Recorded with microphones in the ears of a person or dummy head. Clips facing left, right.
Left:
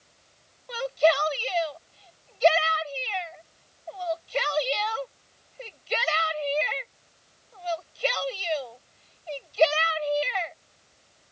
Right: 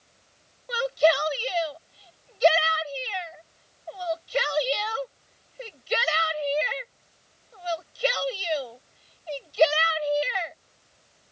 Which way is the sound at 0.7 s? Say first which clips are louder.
Right 1 dB; 15° right (ahead or behind).